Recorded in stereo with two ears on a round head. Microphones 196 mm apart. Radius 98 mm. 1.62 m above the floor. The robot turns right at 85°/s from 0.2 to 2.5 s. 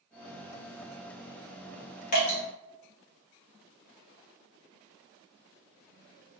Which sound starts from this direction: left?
Dripping, at 2.1 s.